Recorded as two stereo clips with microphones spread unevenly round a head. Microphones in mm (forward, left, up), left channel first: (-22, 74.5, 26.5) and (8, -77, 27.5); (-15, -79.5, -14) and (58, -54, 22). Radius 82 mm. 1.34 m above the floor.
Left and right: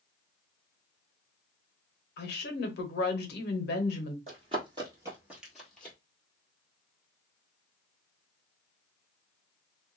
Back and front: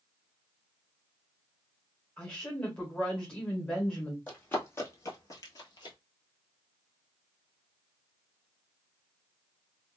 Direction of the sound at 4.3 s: 70° right.